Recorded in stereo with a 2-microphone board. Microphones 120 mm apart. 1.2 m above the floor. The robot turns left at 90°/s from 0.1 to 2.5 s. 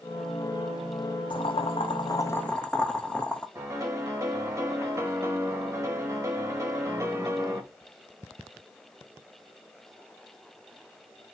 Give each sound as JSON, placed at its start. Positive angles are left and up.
{"t": 1.3, "sound": "boiling", "azimuth_deg": 120, "distance_m": 0.6}
{"t": 3.5, "sound": "a piano", "side_deg": -25, "distance_m": 1.2}